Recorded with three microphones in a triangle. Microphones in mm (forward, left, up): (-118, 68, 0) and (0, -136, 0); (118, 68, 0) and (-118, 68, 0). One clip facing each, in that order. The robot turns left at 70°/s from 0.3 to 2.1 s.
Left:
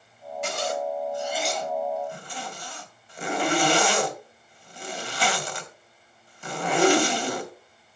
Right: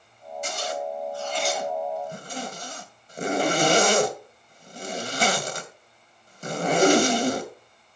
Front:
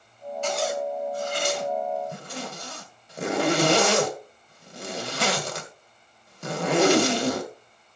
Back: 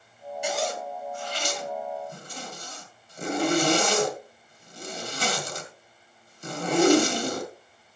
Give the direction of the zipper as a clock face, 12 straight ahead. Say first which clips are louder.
Left 2 dB, front 3 dB; 9 o'clock.